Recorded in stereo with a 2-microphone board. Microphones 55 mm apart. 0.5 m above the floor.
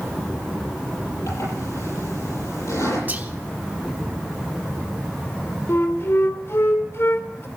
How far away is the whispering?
About 1.0 m.